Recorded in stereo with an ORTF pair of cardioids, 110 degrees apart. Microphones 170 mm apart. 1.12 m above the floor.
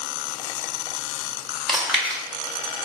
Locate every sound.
1.7 s chewing: straight ahead, 1.2 m